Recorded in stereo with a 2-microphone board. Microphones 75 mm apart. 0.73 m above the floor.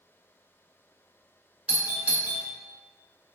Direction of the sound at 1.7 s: 20° right (ahead or behind).